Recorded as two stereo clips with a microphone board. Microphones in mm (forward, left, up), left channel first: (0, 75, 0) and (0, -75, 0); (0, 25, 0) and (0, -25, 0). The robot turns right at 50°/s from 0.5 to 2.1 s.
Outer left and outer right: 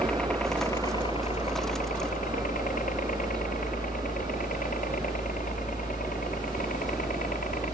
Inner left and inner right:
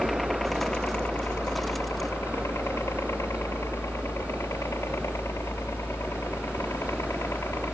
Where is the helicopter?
5° left (ahead or behind); by 7.7 s 65° left (ahead or behind).